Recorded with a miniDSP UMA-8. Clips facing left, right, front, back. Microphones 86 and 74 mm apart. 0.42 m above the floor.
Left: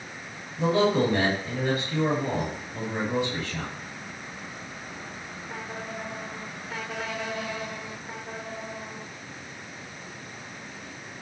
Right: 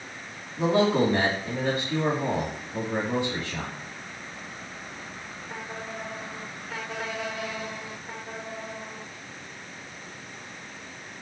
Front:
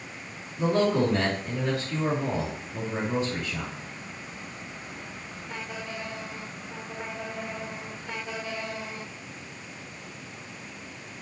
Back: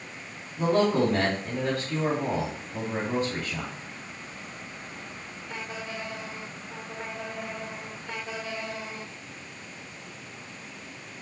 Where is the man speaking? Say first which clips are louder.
Even, back 1 dB; 145° right, 2.5 m.